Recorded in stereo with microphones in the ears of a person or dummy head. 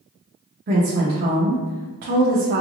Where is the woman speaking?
50° right (ahead or behind), 0.8 m.